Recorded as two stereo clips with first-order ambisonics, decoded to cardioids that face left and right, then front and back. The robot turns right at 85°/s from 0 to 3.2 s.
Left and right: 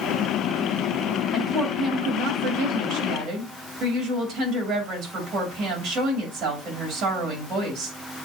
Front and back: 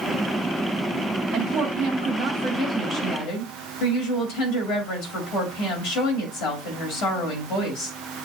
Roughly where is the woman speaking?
Behind.